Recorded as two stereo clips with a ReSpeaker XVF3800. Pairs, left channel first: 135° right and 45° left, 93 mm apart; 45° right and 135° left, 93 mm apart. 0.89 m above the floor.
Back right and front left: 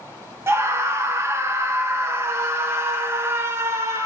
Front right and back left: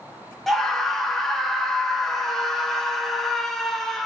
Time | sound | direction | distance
0.5 | a scream | 40° left | 0.6 m